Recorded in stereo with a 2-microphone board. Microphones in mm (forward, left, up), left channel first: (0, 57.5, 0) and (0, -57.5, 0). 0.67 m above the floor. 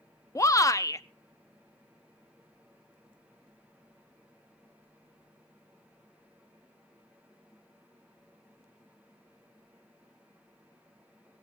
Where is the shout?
30° left (ahead or behind), 0.7 m.